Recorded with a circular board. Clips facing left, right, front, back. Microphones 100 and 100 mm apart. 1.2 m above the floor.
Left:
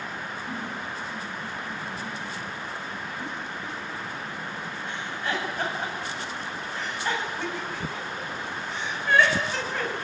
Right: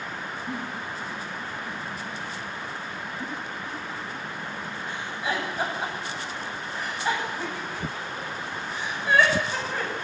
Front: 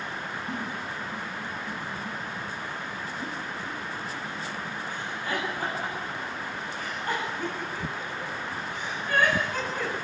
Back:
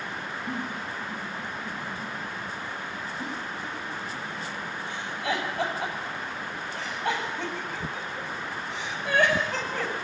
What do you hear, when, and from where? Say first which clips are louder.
0.5 s a giggle: right 1 dB, back 2 dB; 170° right, 9 m